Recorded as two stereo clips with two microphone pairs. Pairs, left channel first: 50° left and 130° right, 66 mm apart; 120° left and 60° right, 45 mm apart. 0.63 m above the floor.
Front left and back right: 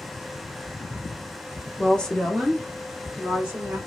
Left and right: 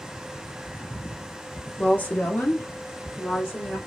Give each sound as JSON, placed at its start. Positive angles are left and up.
{"t": 1.8, "sound": "a woman speaking", "azimuth_deg": 100, "distance_m": 0.8}